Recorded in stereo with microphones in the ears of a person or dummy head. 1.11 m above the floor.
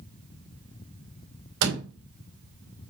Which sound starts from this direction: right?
A door slam, at 1.6 s.